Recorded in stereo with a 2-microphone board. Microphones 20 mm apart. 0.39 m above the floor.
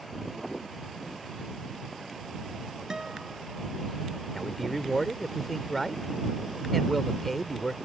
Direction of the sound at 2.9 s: 35° right (ahead or behind).